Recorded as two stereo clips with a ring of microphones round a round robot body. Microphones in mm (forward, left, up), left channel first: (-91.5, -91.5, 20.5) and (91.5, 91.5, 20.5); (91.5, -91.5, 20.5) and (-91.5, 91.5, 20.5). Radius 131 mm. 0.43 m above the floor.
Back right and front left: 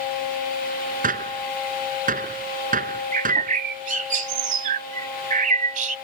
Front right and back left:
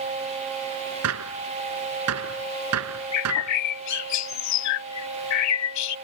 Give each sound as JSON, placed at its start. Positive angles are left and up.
{"t": 1.0, "sound": "a gunshot", "azimuth_deg": 105}
{"t": 3.1, "sound": "a bird", "azimuth_deg": -20}